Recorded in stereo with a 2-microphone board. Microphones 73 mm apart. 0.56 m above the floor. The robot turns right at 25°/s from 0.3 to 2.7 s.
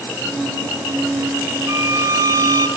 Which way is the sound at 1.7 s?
30° right (ahead or behind).